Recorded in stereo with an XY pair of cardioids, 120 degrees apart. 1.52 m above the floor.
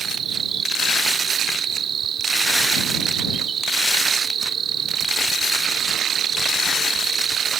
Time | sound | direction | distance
0.0 | an insect | 50° right | ?